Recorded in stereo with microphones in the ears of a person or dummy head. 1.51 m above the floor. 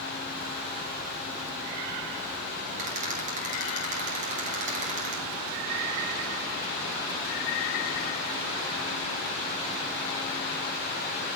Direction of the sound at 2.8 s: 40° right (ahead or behind).